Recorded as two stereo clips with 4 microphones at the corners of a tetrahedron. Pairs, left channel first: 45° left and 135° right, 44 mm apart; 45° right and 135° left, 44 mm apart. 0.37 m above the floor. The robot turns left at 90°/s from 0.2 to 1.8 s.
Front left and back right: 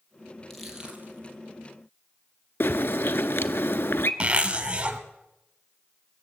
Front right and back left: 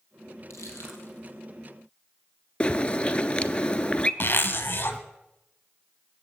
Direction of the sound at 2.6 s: 20° left.